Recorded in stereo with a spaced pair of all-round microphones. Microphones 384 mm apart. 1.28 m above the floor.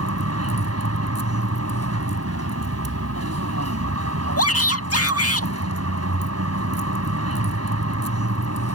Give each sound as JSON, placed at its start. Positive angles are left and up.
{"t": 0.0, "sound": "a vehicle", "side_deg": -40}
{"t": 4.4, "sound": "a shout", "side_deg": 40}